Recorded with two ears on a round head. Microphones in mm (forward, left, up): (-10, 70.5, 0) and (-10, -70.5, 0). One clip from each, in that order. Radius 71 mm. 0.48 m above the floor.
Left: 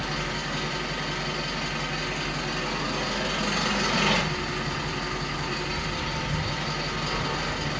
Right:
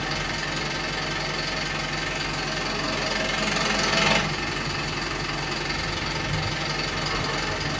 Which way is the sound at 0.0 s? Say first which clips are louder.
Right 2 dB; 40° right (ahead or behind).